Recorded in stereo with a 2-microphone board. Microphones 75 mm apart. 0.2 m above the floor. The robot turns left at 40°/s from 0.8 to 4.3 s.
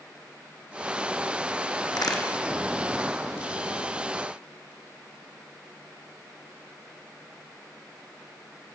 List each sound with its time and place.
1.9 s a crack: 70° left (ahead or behind), 1.4 m; by 2.2 s 85° left, 1.4 m